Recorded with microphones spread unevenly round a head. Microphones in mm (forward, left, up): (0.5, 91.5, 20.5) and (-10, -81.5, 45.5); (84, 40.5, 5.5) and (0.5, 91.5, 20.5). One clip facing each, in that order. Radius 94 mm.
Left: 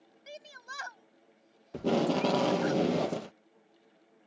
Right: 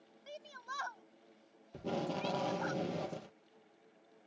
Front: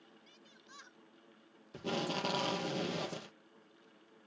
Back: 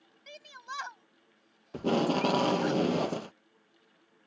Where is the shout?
155° left.